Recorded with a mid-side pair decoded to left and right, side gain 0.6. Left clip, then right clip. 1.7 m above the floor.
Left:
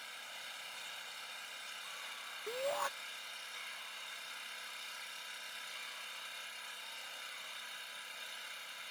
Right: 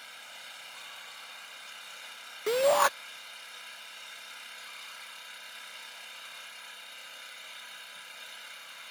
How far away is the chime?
I don't hear a chime.